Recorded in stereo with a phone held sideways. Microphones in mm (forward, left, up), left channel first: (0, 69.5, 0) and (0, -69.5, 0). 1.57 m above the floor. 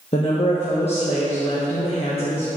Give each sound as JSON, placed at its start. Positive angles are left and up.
{"t": 0.1, "sound": "a woman speaking", "side_deg": 45, "distance_m": 1.3}